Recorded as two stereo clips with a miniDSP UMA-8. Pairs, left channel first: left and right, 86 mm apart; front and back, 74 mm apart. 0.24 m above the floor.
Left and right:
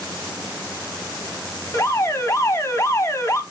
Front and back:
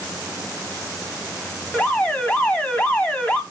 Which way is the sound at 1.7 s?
65° left.